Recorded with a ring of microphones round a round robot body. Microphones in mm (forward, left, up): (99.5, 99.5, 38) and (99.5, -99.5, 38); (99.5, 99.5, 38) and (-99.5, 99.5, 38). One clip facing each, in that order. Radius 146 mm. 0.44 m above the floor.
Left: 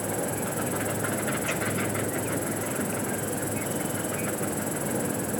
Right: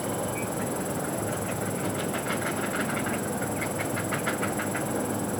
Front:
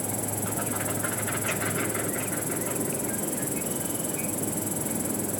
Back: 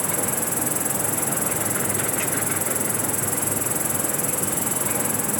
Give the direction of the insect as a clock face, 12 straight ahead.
6 o'clock.